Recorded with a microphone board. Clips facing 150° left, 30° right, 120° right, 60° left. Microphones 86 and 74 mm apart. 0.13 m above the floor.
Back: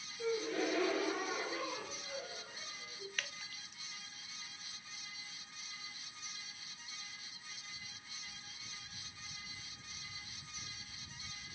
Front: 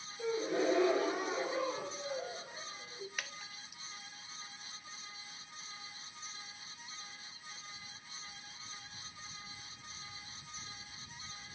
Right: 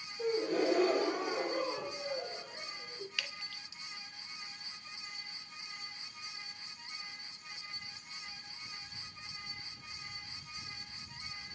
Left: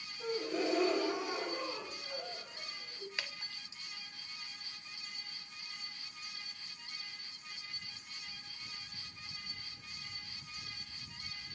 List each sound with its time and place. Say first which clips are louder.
0.2 s a gasp: front 3 dB, right 4 dB; 95° right, 3 m
3.2 s dripping: front 1 dB, right 1 dB; 40° left, 1.2 m